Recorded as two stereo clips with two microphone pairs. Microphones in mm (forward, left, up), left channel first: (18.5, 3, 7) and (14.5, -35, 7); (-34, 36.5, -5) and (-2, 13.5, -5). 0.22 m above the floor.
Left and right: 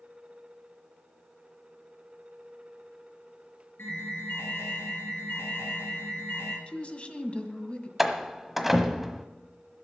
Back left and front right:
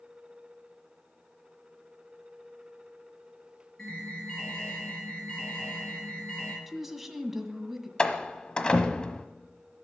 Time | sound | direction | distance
3.8 | an alarm | 75° left | 6 m
6.7 | a woman speaking | 45° left | 1.7 m
8.0 | a door slam | 170° right | 1.2 m